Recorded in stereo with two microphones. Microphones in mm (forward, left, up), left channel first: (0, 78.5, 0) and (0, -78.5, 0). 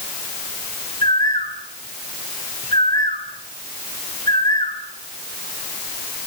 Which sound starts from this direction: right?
A bird, at 1.0 s.